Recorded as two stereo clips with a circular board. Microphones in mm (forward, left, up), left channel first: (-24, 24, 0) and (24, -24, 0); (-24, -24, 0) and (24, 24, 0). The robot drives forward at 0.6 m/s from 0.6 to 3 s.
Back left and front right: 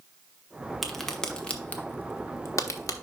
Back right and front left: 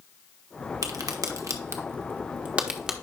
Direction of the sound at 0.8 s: 45° left.